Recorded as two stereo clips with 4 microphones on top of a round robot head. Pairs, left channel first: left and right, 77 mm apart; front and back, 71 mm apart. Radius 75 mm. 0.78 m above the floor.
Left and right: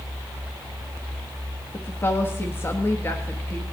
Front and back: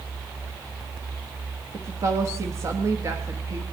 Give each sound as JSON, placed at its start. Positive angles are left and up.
{"t": 1.7, "sound": "a woman speaking", "azimuth_deg": 145, "distance_m": 1.3}